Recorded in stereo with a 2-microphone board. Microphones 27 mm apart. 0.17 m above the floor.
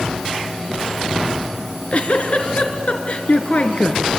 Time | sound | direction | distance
1.6 | a giggle | 50° left (ahead or behind) | 2.5 m